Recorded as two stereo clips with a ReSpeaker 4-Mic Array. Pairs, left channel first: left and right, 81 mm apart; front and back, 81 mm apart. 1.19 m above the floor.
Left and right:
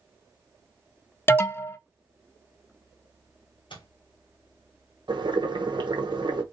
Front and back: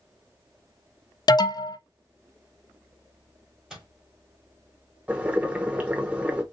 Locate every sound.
1.3 s an alarm: 30° left, 0.6 m
3.7 s a microwave: 95° left, 2.5 m
5.1 s boiling: 105° right, 1.0 m